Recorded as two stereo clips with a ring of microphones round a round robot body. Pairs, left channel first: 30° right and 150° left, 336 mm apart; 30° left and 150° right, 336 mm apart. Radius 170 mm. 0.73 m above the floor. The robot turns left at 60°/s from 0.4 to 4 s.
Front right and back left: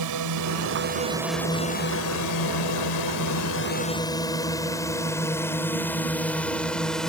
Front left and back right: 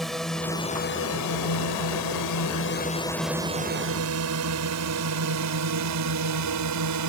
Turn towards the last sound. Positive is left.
turn(degrees=-120)